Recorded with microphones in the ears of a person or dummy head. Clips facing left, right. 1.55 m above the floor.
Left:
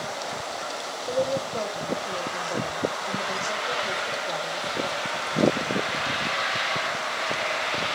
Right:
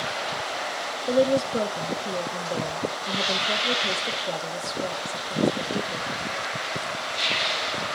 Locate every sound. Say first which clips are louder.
1.1 s a woman speaking: right 5 dB; 30° right (ahead or behind), 1.3 m